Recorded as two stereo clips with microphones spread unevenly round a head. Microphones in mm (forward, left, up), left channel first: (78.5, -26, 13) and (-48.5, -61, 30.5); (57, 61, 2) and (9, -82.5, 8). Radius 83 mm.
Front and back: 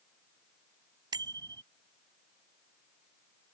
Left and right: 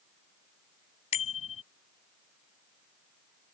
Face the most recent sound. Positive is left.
turn(degrees=130)